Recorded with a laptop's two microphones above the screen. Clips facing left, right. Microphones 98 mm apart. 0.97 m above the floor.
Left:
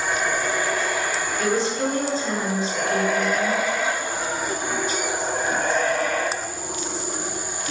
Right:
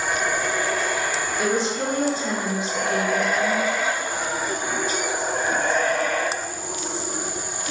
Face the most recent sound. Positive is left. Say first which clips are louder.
# left 1 dB
turn(degrees=-15)  # may be behind; listen again after turning